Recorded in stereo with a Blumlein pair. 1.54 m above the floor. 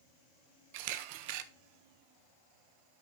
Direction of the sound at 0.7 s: 45° right.